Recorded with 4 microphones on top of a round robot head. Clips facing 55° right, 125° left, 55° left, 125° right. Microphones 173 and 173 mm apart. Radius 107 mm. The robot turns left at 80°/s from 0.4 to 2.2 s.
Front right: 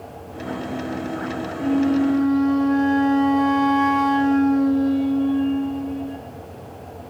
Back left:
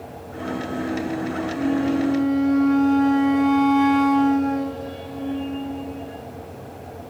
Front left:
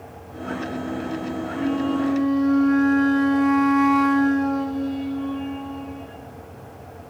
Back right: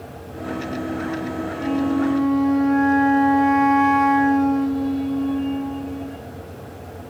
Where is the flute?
95° left, 1.3 m; by 6.2 s 45° left, 1.3 m.